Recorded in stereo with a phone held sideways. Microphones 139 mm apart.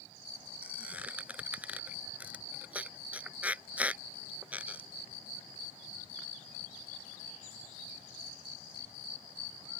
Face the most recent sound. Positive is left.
turn(degrees=-10)  # may be behind; listen again after turning